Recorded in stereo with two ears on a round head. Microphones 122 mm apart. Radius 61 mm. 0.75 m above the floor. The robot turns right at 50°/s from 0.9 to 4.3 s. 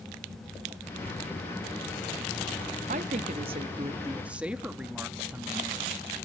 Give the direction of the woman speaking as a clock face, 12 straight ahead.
3 o'clock.